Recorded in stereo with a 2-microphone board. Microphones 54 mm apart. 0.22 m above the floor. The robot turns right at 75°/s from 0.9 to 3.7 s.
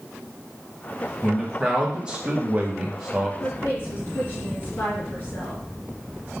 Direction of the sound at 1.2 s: 5° right (ahead or behind).